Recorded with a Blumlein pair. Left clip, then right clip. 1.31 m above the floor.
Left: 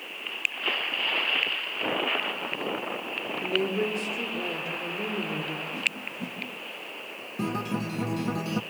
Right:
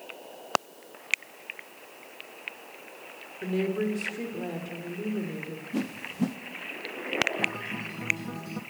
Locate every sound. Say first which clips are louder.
3.4 s a woman speaking: left 1 dB; 5° left, 4 m
5.7 s a whoosh: left 3 dB; 60° right, 1.1 m
7.4 s a guitar: right 1 dB; 65° left, 0.8 m